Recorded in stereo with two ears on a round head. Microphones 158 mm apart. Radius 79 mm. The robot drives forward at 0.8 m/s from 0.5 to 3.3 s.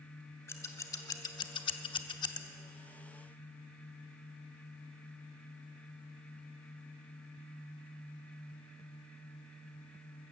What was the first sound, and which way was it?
Scissors, 15° left (ahead or behind).